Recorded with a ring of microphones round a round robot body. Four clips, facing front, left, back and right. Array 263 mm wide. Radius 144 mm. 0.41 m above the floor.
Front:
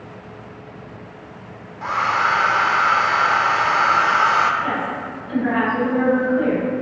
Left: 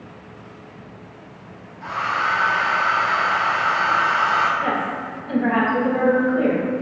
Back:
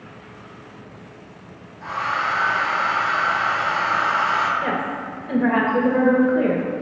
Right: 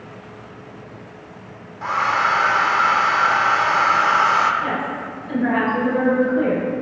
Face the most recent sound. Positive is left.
turn(degrees=165)